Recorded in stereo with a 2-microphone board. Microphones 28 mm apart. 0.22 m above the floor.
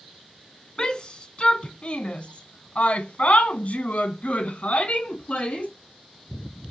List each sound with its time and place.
0.8 s a shout: 30° left (ahead or behind), 2 m; by 5.7 s 45° left (ahead or behind), 2.5 m